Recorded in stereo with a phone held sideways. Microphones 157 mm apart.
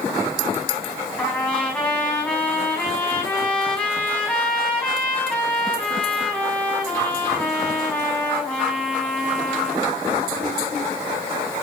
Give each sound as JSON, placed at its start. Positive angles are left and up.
{"t": 1.2, "sound": "a trumpet", "side_deg": 10, "distance_m": 4.5}